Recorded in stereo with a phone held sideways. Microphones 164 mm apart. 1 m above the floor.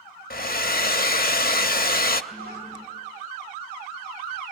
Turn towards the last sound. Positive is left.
turn(degrees=-65)  # may be behind; listen again after turning